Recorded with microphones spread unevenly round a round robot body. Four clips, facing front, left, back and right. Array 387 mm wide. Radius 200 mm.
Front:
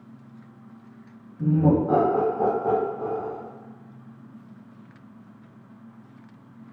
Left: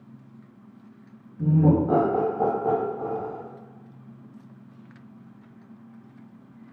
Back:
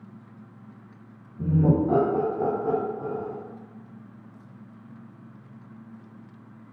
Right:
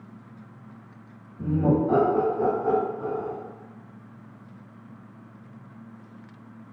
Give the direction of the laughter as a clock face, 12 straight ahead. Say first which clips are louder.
Left 2 dB, front 2 dB; 6 o'clock.